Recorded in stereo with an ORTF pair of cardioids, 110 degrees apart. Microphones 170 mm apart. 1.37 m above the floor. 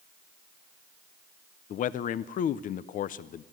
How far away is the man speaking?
About 0.7 m.